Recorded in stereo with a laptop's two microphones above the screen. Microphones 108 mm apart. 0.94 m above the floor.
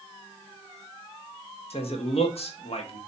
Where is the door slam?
No door slam in this recording.